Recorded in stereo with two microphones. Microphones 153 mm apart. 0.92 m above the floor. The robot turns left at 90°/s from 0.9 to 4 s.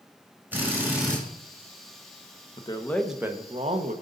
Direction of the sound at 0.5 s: 15° right (ahead or behind).